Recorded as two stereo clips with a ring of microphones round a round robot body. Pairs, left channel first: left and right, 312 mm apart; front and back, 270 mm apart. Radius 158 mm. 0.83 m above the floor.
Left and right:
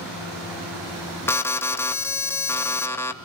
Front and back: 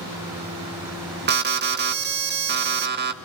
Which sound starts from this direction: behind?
An alarm, at 1.3 s.